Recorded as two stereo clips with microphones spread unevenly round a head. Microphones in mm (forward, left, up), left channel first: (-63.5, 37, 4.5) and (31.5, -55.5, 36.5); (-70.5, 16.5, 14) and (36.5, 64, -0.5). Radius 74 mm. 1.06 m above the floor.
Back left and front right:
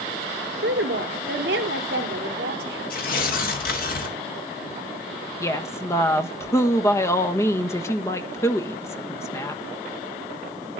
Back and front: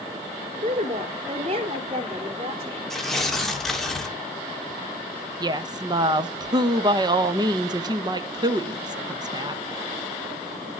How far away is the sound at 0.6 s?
About 3 m.